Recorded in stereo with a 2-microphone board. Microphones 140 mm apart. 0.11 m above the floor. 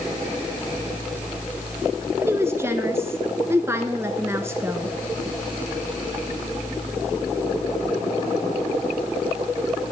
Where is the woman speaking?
20° right (ahead or behind), 1.1 m.